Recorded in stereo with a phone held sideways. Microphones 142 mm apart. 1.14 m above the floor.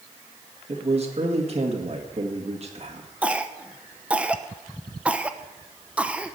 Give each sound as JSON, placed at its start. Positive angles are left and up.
{"t": 0.7, "sound": "a man speaking", "side_deg": -50, "distance_m": 2.0}
{"t": 3.2, "sound": "a cough", "side_deg": -10, "distance_m": 0.9}